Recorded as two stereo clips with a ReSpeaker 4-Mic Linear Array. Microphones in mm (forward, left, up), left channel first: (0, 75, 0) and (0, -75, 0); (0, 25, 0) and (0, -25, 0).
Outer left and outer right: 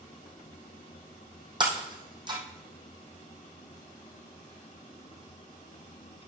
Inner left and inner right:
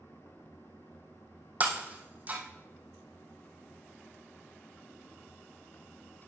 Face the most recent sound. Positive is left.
turn(degrees=-30)  # may be behind; listen again after turning